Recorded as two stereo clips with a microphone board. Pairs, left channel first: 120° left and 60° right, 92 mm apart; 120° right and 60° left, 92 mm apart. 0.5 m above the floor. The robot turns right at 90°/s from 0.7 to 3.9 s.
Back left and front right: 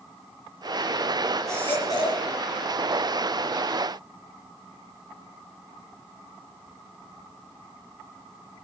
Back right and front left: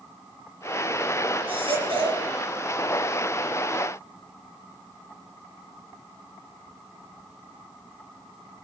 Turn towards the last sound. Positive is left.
turn(degrees=-105)